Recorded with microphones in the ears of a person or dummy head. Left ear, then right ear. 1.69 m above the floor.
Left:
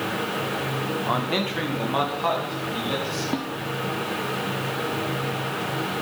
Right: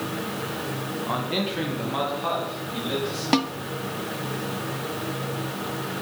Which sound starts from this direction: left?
A man speaking, at 1.1 s.